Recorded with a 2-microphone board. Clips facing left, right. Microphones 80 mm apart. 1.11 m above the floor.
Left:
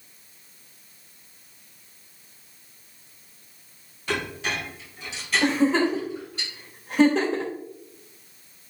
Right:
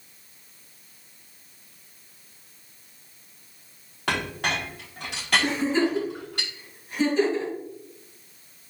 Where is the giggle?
85° left, 3 m.